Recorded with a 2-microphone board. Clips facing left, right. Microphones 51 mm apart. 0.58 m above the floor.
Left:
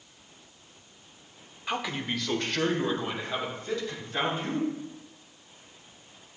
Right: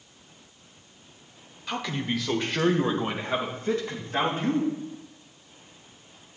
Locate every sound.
1.7 s a man speaking: 20° left (ahead or behind), 1.2 m; by 4.7 s 40° right (ahead or behind), 3.5 m